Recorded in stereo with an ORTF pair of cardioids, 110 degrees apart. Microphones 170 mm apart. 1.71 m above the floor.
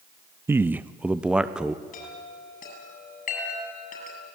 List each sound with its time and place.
0.5 s a man speaking: 15° right, 0.5 m; by 1.8 s 5° right, 1.4 m
1.9 s a chime: 55° left, 8 m